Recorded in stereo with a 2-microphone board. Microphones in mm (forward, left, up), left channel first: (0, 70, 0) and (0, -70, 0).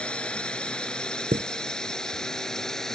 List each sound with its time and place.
0.0 s a drone: 5° left (ahead or behind)
1.3 s a chime: 60° right (ahead or behind)